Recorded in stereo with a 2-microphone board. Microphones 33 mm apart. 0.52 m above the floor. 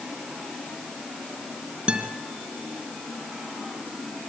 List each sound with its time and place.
1.9 s a guitar: 35° right (ahead or behind), 3 m